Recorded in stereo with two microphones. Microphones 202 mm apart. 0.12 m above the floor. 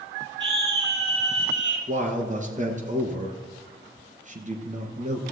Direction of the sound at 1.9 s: 40° right (ahead or behind).